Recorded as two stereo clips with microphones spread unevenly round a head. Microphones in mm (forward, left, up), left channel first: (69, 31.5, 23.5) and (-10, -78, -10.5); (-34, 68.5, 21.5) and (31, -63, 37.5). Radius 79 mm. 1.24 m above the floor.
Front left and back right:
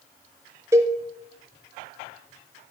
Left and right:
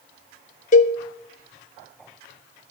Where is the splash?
No splash in this recording.